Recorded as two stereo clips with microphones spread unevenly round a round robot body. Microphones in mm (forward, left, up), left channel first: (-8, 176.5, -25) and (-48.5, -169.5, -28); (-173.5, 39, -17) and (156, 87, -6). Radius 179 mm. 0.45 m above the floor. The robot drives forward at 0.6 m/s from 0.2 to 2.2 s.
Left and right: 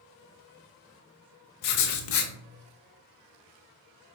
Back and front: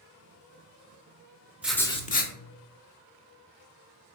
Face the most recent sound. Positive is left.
turn(degrees=130)